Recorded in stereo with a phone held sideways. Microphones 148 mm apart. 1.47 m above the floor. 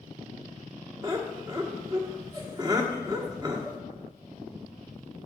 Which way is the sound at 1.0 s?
25° right (ahead or behind).